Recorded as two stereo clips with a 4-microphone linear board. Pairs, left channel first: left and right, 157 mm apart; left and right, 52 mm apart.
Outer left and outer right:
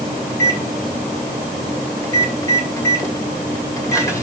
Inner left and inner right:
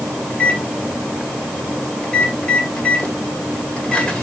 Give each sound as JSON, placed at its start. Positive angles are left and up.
{"t": 0.3, "sound": "a microwave", "side_deg": 20, "distance_m": 2.0}